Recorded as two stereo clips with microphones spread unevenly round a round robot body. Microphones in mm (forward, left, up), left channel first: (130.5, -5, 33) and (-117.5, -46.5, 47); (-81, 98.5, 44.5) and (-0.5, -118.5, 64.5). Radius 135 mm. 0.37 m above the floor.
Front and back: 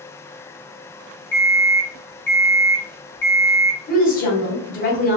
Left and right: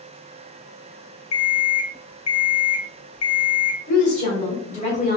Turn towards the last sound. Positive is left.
turn(degrees=60)